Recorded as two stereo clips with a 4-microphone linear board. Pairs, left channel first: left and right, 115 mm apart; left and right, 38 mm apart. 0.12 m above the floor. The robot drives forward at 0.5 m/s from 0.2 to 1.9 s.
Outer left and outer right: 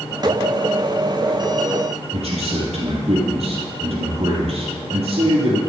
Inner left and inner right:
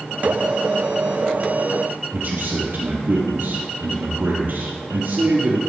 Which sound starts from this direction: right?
A man speaking, at 2.1 s.